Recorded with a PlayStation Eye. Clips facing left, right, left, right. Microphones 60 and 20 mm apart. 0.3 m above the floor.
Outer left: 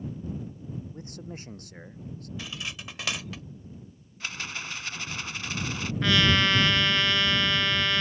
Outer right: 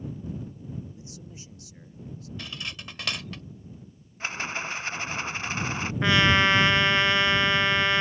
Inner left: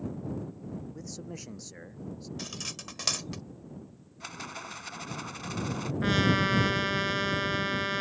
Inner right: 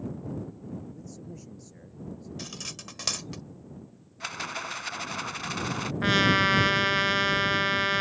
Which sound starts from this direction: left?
A man speaking, at 0.9 s.